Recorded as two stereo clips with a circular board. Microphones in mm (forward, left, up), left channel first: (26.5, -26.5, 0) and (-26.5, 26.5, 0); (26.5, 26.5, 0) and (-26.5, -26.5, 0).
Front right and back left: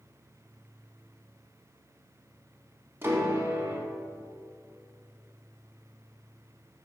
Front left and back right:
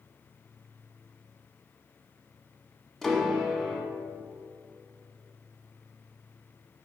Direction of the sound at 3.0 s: 125° left.